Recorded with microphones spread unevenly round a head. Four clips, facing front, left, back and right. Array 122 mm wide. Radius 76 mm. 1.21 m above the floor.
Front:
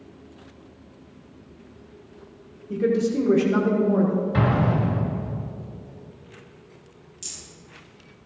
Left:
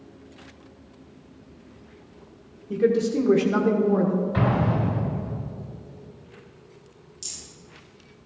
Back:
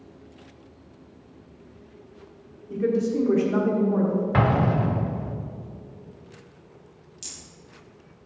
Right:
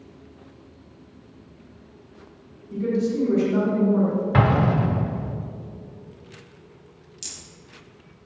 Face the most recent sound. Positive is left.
turn(degrees=-70)